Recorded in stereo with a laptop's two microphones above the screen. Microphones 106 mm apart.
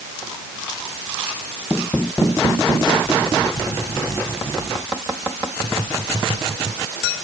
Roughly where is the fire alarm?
No fire alarm in this recording.